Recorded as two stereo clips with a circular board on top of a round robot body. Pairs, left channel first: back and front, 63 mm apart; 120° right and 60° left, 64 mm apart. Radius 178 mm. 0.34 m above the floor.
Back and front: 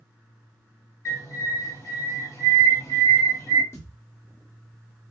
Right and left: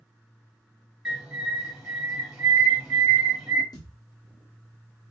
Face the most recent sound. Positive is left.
turn(degrees=-130)